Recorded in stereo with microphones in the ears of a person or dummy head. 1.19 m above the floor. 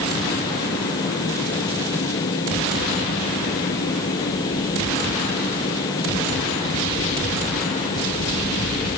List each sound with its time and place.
Only background noise.